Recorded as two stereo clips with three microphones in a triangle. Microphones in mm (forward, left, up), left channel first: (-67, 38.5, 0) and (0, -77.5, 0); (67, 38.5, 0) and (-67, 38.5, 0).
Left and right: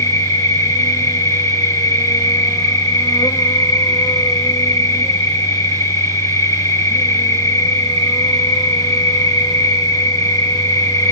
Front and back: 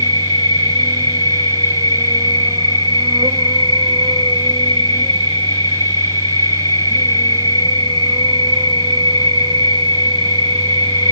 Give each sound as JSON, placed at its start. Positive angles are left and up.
{"t": 0.0, "sound": "an insect", "azimuth_deg": 165, "distance_m": 1.1}